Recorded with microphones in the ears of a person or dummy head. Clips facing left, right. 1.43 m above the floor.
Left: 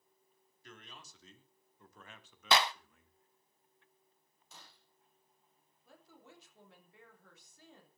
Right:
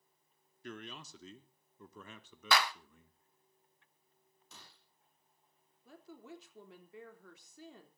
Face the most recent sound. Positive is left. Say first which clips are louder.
# right 8 dB
turn(degrees=-60)  # may be behind; listen again after turning